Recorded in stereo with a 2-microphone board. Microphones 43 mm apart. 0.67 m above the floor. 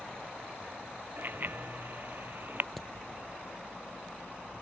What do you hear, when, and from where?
1.2 s a bicycle bell: 45° right (ahead or behind)
2.8 s hammering: 5° left (ahead or behind)